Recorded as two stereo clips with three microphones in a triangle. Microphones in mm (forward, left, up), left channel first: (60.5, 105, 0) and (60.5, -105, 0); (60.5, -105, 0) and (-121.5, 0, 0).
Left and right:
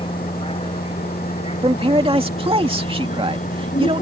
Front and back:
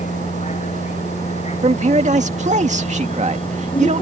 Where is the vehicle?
25° left; by 4.0 s 35° left.